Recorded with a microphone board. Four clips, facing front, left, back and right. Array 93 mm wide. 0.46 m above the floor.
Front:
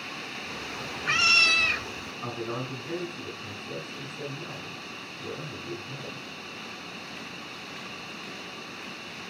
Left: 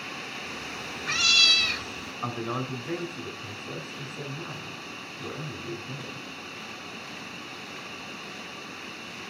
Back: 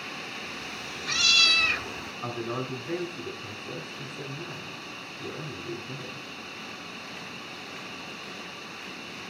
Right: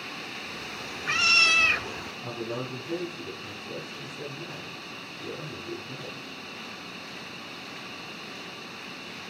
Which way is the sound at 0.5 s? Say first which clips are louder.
Left 1 dB, front 2 dB; 15° left.